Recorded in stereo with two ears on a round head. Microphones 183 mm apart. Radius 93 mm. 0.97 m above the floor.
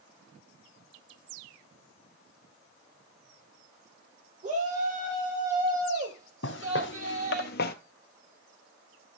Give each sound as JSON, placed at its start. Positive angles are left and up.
{"t": 4.4, "sound": "a shout", "side_deg": -40, "distance_m": 4.0}
{"t": 6.4, "sound": "footsteps", "side_deg": 60, "distance_m": 1.9}